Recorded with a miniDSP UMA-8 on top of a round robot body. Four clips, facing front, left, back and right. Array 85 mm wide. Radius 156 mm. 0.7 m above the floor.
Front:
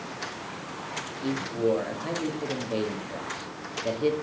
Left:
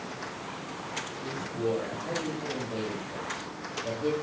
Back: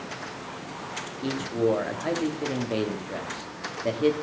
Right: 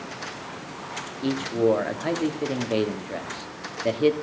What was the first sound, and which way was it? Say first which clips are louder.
A man speaking: right 10 dB, back 1 dB; 110° right.